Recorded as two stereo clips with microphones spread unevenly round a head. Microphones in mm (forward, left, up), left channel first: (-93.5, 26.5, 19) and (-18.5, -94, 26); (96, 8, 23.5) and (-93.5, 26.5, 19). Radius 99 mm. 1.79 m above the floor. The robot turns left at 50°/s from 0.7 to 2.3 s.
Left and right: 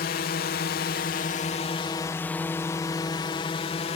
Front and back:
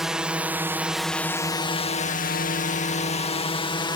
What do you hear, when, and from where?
0.0 s a drone: 85° left; by 4.0 s 65° left